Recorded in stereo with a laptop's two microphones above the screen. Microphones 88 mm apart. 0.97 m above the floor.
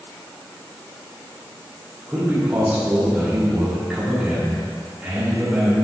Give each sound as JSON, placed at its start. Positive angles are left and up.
{"t": 2.1, "sound": "a man speaking", "side_deg": -10, "distance_m": 2.5}